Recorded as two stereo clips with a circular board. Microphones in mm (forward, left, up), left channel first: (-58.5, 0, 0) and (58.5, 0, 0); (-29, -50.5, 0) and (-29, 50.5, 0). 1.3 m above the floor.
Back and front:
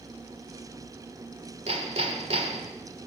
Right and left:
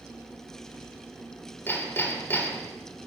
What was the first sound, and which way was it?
Hammering, 25° right.